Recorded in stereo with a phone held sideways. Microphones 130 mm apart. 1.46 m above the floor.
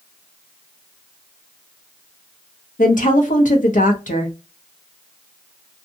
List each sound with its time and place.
2.8 s a woman speaking: 85° left, 0.8 m